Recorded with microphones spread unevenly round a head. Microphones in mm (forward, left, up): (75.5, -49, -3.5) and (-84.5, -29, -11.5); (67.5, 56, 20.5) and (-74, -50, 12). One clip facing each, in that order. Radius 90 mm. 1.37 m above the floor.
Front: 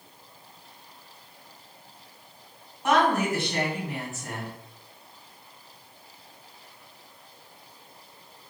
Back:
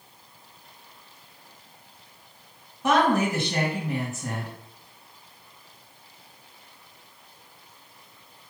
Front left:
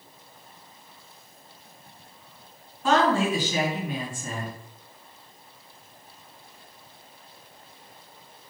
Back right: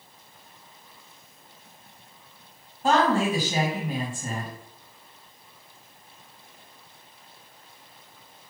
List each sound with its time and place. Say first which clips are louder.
2.8 s a woman speaking: back 1 dB, even; 170° left, 2 m